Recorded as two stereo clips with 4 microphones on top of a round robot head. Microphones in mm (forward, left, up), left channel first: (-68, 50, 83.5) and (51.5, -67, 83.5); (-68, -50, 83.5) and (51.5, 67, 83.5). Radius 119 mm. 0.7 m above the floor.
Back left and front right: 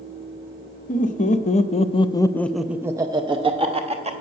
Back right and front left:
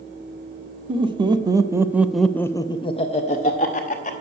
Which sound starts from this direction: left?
Laughter, at 0.9 s.